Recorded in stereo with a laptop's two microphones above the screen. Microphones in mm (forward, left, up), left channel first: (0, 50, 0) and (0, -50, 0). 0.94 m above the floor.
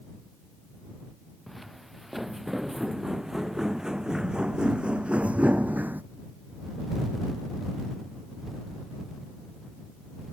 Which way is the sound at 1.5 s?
Centre (ahead or behind).